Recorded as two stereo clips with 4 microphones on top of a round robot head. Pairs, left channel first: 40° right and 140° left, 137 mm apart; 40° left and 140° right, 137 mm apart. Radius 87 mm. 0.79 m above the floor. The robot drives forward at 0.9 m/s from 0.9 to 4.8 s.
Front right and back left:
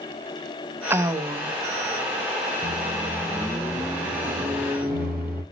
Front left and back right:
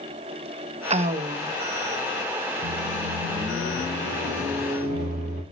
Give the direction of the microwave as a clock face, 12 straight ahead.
5 o'clock.